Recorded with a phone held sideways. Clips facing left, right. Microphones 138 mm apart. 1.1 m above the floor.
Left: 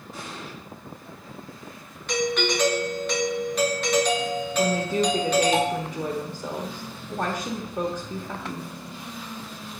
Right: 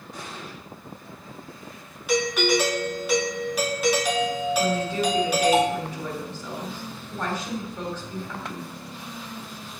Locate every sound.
0.1 s an explosion: 5° left (ahead or behind), 6 m
2.1 s a doorbell: 5° right (ahead or behind), 2.5 m
4.6 s a woman speaking: 45° left (ahead or behind), 1.5 m